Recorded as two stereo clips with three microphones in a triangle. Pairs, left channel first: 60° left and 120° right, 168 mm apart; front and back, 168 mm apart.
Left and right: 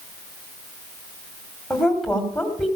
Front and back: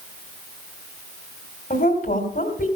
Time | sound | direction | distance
1.7 | a woman speaking | 25° right | 3 m